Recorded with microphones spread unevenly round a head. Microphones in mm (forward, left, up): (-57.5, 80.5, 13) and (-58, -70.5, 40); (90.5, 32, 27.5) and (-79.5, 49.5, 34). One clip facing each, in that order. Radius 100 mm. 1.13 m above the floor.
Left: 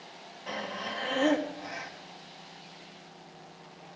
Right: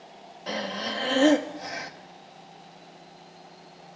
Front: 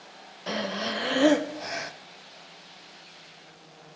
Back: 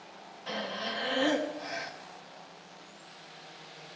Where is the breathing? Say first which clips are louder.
Right 5 dB, front 6 dB; 30° right, 0.9 m.